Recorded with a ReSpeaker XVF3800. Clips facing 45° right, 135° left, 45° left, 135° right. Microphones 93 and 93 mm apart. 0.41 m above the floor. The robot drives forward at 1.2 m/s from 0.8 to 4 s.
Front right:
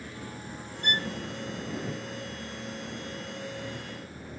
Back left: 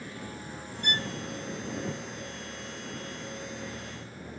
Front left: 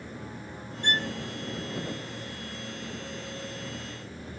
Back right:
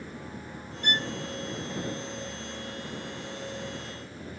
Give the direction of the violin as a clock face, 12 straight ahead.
12 o'clock.